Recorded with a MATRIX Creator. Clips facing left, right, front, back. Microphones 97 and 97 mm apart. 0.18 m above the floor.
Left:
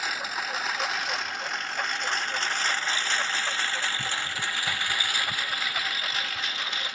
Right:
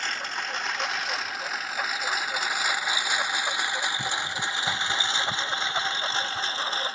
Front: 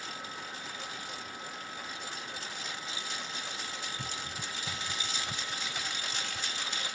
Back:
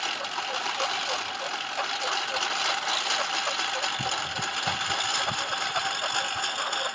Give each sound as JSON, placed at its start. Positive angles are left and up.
{"t": 0.0, "sound": "a lawn mower", "azimuth_deg": 175}